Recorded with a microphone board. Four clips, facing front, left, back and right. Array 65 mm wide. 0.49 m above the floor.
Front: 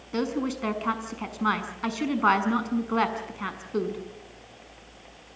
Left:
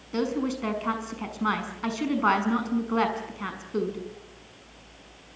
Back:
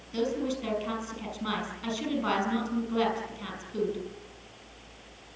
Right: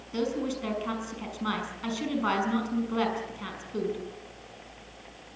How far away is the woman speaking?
About 5.5 m.